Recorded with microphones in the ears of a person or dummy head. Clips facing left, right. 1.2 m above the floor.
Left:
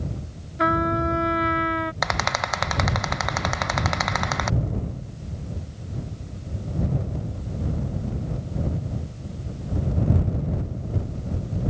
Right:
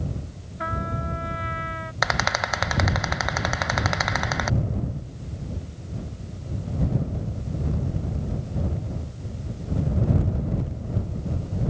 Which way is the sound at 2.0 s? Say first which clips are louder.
Even; 5° right (ahead or behind).